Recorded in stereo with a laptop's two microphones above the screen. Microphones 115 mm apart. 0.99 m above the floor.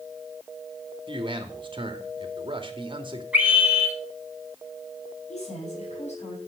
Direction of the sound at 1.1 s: 45° right (ahead or behind).